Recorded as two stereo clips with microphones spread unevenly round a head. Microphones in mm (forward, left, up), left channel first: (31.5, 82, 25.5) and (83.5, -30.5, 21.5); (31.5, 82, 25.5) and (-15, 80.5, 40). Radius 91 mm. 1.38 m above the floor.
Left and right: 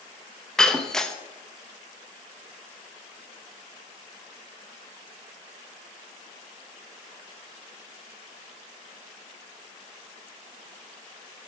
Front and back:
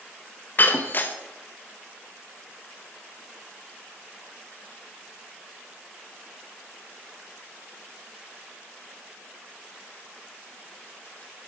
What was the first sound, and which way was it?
Breaking glass, 40° left.